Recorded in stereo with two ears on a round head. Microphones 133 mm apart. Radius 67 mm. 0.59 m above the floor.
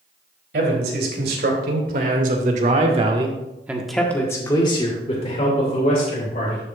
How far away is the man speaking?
About 3.5 m.